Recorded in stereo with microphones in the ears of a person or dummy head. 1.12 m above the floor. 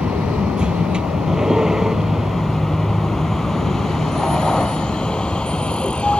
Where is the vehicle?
5° right (ahead or behind); by 6.2 s 5° left (ahead or behind).